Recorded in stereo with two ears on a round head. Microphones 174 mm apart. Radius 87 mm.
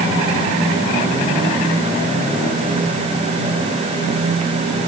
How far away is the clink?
No clink in this recording.